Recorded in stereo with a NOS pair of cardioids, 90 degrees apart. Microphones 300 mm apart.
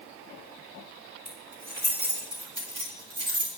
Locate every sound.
1.2 s keys jangling: 5° right, 4.5 m; by 3.5 s 30° right, 3 m